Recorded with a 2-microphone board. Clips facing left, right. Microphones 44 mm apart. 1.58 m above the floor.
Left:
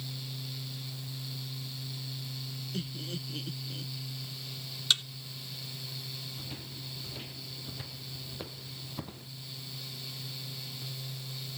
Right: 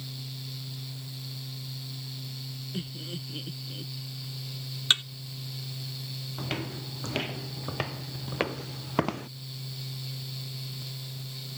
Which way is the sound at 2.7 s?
15° right (ahead or behind).